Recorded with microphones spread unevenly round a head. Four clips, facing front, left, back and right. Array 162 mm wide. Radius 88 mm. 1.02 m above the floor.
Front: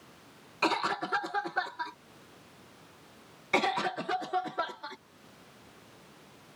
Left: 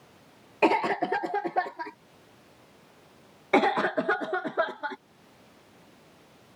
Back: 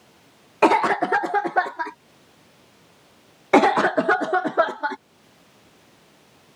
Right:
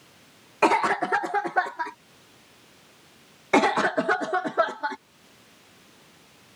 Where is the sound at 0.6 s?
Straight behind.